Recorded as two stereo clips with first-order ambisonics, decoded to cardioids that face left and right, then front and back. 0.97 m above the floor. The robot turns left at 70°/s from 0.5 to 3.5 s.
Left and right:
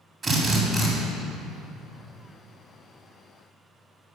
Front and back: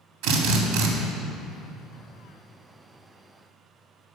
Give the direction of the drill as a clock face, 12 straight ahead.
5 o'clock.